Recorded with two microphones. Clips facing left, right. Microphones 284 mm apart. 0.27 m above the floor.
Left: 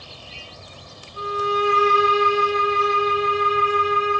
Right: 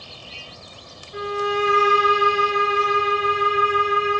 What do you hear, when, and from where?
1.1 s a violin: 85° right, 5.5 m